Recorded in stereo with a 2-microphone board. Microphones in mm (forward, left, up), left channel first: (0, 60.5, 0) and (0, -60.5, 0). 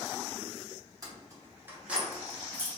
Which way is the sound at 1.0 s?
30° right (ahead or behind).